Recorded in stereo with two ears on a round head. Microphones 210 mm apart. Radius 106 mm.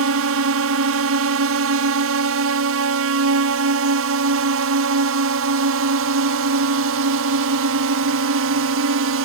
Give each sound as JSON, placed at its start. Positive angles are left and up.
{"t": 0.0, "sound": "a drone", "side_deg": -65}